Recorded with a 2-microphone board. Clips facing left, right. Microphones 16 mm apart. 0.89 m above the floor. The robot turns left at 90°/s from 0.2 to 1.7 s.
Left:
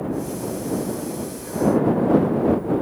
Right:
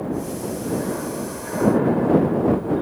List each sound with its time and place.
0.0 s an aircraft: 20° right (ahead or behind); by 2.8 s 35° right (ahead or behind)